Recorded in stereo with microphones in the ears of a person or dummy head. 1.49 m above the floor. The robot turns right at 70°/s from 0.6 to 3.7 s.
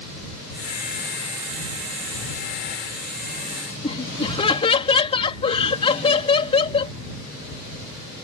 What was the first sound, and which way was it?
Laughter, 30° left (ahead or behind).